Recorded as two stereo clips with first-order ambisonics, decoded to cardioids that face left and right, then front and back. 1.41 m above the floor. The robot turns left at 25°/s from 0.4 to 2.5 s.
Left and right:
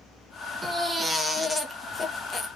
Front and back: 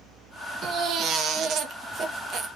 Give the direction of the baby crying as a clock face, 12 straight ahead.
6 o'clock.